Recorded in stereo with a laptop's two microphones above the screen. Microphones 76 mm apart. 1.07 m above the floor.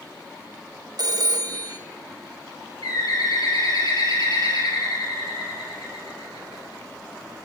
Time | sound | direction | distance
1.0 | a phone ringing | 60° right (ahead or behind) | 1.0 m
2.8 | a bird | 70° left (ahead or behind) | 4 m